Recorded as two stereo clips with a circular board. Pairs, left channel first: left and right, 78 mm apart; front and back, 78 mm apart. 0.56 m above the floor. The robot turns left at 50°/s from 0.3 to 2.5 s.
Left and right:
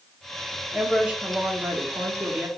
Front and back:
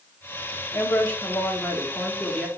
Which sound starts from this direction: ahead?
A woman speaking, at 0.7 s.